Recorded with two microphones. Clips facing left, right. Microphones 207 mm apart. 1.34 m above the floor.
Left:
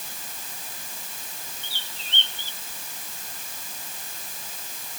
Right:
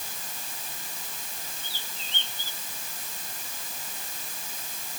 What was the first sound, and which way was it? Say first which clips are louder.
A bird: even; 75° left (ahead or behind).